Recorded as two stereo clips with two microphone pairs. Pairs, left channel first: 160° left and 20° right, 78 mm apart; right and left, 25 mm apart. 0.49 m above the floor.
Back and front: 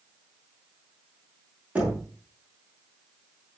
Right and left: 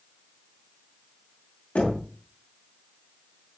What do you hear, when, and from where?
1.8 s knocking: 95° right, 5.5 m